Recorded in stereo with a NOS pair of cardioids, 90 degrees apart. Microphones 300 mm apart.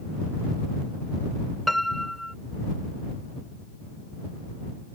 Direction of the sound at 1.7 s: Straight ahead.